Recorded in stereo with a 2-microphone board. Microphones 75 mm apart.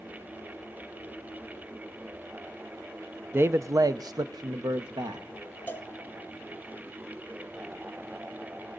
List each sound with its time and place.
3.3 s a man speaking: 30° right (ahead or behind), 0.6 m; by 5.3 s 75° right (ahead or behind), 1.4 m
5.7 s a cowbell: 25° left (ahead or behind), 1.2 m